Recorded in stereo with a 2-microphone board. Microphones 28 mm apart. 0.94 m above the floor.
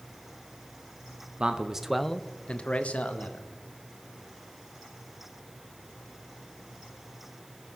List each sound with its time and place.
1.4 s a man speaking: 35° right (ahead or behind), 0.8 m; by 3.5 s 70° left (ahead or behind), 1.5 m